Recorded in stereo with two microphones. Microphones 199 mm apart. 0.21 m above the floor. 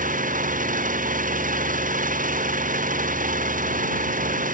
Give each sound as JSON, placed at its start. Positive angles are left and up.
{"t": 0.0, "sound": "an engine running", "side_deg": -40}